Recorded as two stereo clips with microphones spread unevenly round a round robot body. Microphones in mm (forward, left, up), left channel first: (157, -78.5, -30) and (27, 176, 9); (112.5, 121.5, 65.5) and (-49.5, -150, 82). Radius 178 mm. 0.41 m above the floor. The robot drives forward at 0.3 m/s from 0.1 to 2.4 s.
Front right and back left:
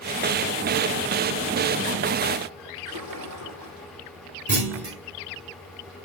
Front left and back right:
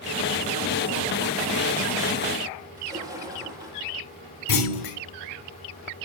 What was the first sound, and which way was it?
A splash, 160° left.